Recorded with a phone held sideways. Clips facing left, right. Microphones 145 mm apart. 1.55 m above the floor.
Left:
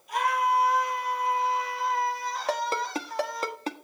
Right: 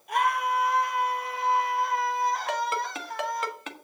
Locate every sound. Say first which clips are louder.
0.1 s a scream: left 1 dB; 60° right (ahead or behind), 6 m; by 3.5 s 55° right (ahead or behind), 4 m
2.5 s a ringtone: left 1 dB; 35° left (ahead or behind), 1.3 m